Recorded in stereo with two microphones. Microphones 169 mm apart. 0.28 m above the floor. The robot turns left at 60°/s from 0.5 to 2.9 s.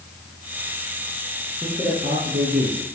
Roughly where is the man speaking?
Ahead.